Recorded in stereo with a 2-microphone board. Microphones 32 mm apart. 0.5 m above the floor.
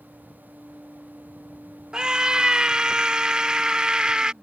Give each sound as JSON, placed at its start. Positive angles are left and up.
{"t": 1.9, "sound": "a scream", "side_deg": -25}